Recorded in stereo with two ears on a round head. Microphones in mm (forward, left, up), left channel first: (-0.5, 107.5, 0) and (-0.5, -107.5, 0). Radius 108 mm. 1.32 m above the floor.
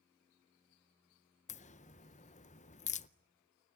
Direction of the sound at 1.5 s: 30° left (ahead or behind).